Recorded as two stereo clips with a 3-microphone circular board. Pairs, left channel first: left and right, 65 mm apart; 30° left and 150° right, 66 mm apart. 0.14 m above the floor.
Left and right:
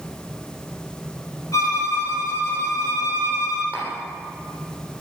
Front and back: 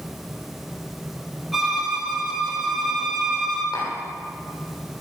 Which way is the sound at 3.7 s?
35° left.